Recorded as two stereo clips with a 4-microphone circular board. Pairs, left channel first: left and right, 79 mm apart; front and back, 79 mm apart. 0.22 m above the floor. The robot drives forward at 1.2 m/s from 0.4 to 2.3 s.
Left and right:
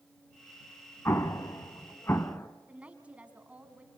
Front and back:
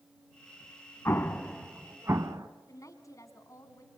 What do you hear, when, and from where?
1.1 s an explosion: 45° left, 1.1 m; by 2.5 s 145° left, 1.3 m
2.7 s a woman speaking: 20° right, 2 m